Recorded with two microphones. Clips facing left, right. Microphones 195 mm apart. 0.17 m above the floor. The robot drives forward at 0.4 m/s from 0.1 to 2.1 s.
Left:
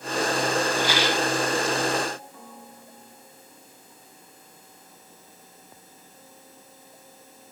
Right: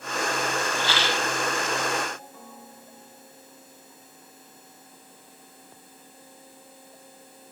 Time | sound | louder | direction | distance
0.8 | a rattle | left 4 dB | 15° left (ahead or behind) | 1.6 m